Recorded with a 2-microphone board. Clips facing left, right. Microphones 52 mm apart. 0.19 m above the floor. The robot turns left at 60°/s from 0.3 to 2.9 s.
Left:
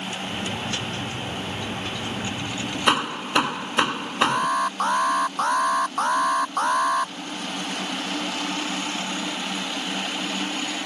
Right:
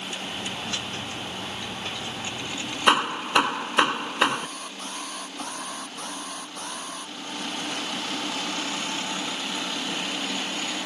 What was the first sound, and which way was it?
Hammering, 5° right (ahead or behind).